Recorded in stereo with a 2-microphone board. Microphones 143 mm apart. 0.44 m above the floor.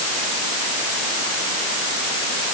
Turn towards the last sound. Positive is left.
No sound to turn to.